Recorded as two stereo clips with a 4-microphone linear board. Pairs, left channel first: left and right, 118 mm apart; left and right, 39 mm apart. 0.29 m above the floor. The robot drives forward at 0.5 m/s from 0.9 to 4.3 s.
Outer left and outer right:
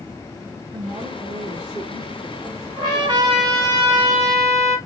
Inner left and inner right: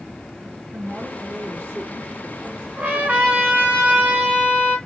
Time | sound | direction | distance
0.7 | a woman speaking | 45° right (ahead or behind) | 4 m
2.8 | a trumpet | 40° right (ahead or behind) | 2.5 m